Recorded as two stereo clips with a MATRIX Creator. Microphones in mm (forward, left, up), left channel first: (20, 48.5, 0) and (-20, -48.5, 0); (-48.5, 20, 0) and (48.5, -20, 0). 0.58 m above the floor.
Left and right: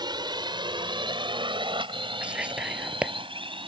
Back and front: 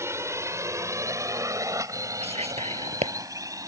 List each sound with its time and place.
0.0 s a drone: 80° right
2.2 s whispering: 35° right